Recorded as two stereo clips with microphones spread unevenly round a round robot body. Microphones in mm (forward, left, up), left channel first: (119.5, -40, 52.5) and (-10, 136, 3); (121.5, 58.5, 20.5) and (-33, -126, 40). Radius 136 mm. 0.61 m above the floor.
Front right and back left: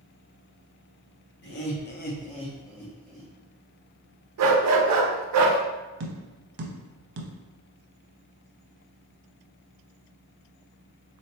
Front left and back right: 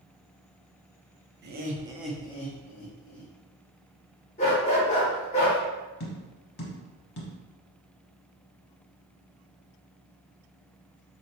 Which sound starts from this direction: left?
Tapping, at 6.0 s.